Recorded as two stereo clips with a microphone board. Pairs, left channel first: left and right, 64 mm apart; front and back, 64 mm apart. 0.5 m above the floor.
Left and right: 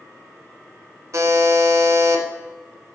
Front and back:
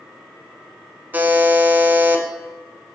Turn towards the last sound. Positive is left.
turn(degrees=-120)